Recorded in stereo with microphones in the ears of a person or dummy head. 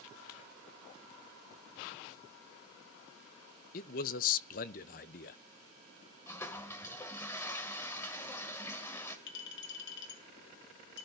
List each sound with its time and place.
3.7 s a man speaking: 40° left (ahead or behind), 0.7 m
6.3 s a toilet flushing: 15° left (ahead or behind), 1.2 m
9.3 s a clink: 60° left (ahead or behind), 2.5 m